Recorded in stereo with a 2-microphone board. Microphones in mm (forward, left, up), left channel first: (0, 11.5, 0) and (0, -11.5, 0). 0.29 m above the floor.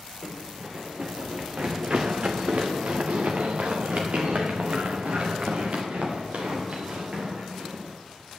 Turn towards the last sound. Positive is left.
turn(degrees=-70)  # may be behind; listen again after turning